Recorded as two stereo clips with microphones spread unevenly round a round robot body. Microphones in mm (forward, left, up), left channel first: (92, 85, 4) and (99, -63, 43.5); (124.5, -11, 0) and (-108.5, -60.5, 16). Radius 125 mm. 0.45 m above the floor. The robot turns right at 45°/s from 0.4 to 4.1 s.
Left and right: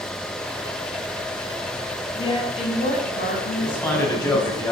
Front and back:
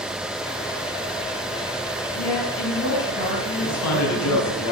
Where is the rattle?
I don't hear a rattle.